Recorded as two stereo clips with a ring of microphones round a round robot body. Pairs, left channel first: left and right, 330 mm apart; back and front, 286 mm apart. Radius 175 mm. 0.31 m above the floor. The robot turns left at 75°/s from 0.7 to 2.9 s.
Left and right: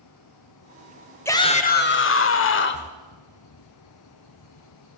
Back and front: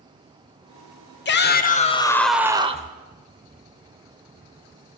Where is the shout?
170° left, 1.0 m; by 2.9 s 45° left, 1.0 m.